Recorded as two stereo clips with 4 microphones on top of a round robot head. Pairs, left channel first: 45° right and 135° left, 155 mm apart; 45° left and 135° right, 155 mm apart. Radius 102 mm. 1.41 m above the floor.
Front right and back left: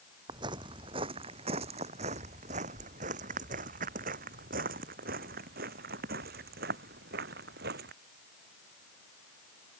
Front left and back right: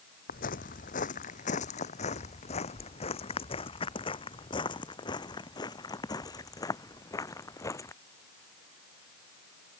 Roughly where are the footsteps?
Left.